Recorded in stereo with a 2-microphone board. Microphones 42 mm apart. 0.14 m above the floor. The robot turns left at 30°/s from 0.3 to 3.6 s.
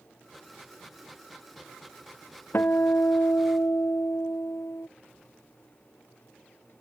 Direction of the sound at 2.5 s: 120° left.